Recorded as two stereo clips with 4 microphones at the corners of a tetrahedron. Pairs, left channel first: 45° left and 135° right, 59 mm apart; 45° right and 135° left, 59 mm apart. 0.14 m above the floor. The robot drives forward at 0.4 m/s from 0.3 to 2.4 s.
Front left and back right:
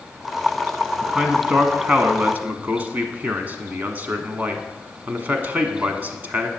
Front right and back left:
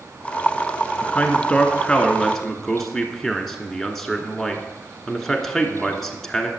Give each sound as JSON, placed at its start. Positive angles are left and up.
{"t": 1.0, "sound": "a man speaking", "azimuth_deg": -65, "distance_m": 1.1}